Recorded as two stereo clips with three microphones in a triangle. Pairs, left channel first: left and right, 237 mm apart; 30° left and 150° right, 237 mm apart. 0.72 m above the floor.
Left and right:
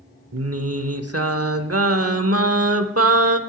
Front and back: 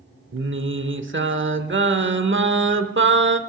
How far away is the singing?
About 0.8 m.